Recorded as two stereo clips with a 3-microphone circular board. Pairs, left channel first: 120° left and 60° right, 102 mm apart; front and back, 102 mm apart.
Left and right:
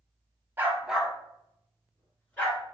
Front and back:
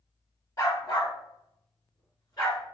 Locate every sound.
0.6 s a dog barking: 5° right, 0.5 m; by 2.6 s 45° left, 1.6 m